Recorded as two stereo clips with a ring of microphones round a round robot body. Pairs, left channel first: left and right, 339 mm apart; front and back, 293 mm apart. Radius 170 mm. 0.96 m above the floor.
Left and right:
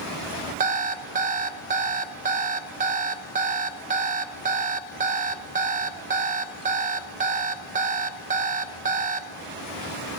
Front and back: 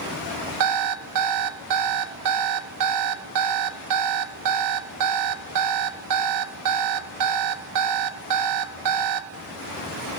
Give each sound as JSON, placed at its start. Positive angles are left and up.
{"t": 0.6, "sound": "an alarm clock", "azimuth_deg": -155, "distance_m": 0.6}